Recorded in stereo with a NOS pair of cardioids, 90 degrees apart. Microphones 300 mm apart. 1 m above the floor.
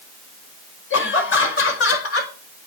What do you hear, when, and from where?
0.9 s laughter: 45° left, 5 m; by 2.7 s 55° left, 4.5 m